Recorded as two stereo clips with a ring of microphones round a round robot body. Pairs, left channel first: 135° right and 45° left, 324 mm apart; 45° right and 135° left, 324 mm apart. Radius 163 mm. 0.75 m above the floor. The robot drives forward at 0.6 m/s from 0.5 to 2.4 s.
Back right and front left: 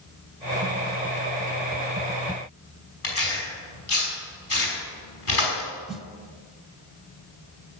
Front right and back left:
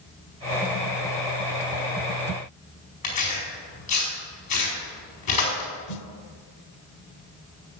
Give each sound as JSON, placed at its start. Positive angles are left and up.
{"t": 3.0, "sound": "tearing paper", "azimuth_deg": -85, "distance_m": 5.0}
{"t": 5.9, "sound": "a snare drum", "azimuth_deg": -45, "distance_m": 0.7}